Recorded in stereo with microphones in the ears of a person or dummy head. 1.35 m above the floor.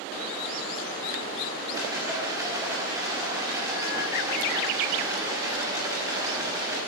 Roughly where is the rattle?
Centre.